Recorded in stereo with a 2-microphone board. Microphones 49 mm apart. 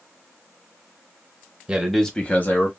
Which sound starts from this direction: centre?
A man speaking, at 1.7 s.